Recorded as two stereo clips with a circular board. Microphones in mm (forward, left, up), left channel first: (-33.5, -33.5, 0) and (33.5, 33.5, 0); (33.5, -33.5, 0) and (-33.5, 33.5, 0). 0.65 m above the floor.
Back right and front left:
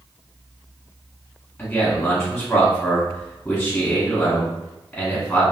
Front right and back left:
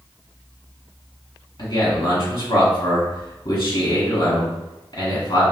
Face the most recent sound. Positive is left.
turn(degrees=-55)